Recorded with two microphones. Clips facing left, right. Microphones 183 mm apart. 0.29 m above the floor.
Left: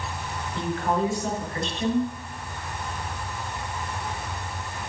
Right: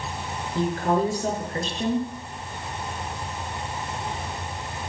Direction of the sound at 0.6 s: 40° right (ahead or behind).